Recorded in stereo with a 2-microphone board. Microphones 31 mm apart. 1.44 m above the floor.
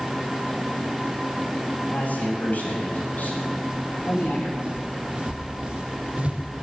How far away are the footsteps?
About 3.5 m.